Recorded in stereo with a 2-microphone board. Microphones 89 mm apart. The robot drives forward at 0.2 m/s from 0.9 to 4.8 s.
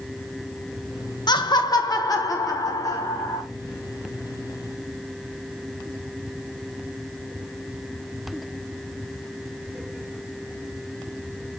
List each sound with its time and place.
1.3 s laughter: 55° left (ahead or behind), 0.7 m; by 3.4 s 35° left (ahead or behind), 1.0 m